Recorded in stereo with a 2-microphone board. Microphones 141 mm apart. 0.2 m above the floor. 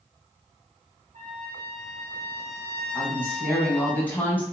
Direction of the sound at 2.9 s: 15° left (ahead or behind).